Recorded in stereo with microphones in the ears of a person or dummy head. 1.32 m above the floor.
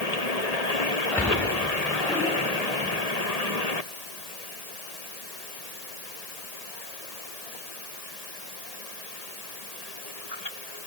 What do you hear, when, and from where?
1.1 s a splash: 10° left (ahead or behind), 5.5 m